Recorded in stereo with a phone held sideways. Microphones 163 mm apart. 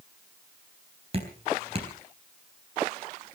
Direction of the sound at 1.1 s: 40° right (ahead or behind).